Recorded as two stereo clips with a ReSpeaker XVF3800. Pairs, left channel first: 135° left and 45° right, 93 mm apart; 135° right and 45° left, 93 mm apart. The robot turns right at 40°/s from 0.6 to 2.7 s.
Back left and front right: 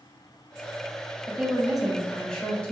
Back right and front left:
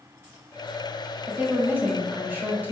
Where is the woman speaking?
25° left, 1.0 m; by 2.7 s 85° left, 1.0 m.